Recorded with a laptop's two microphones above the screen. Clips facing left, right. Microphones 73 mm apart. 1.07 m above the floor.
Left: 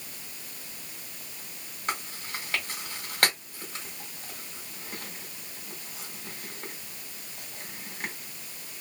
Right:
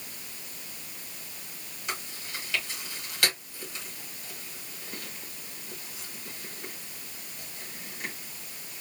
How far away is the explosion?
I don't hear an explosion.